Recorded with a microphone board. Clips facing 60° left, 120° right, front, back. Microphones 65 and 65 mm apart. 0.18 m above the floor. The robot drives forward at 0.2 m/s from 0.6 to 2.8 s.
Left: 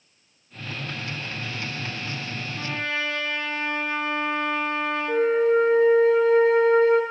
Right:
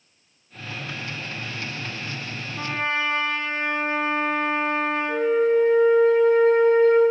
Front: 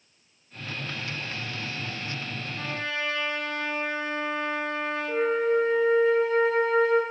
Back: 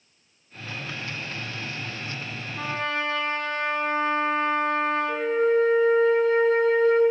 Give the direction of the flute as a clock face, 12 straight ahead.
10 o'clock.